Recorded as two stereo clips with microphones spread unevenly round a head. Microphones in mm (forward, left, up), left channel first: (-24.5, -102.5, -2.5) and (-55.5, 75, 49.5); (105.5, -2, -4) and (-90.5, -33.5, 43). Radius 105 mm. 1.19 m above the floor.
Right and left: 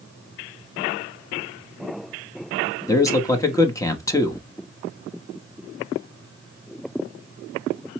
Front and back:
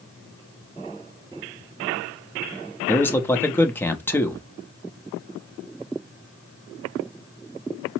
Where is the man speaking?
45° right, 0.7 m.